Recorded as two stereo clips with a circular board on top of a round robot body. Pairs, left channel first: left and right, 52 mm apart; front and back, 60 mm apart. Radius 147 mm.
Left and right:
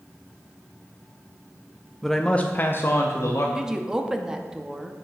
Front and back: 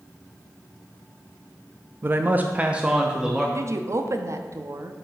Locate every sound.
2.0 s a man speaking: straight behind, 0.6 m; by 3.5 s 100° left, 1.1 m
3.5 s a woman speaking: 165° right, 0.9 m